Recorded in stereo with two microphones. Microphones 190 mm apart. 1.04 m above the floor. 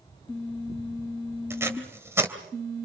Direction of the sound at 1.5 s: 15° right (ahead or behind).